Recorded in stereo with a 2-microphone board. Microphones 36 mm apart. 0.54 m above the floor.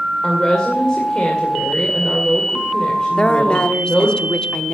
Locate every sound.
0.2 s a woman speaking: 25° left (ahead or behind), 2 m
3.2 s a woman speaking: 30° left (ahead or behind), 0.8 m